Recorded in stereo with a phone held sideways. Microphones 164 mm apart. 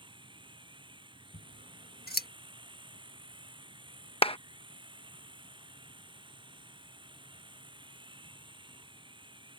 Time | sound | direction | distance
0.0 | a machine running | 30° right (ahead or behind) | ?
1.3 | scissors | 70° left (ahead or behind) | ?
4.2 | a clap | 35° left (ahead or behind) | ?